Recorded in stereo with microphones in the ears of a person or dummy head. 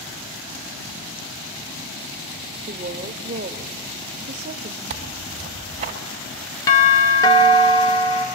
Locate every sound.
2.7 s a woman speaking: 45° right (ahead or behind), 0.7 m
4.9 s tearing paper: 40° right (ahead or behind), 1.0 m
6.7 s a doorbell: 20° left (ahead or behind), 0.8 m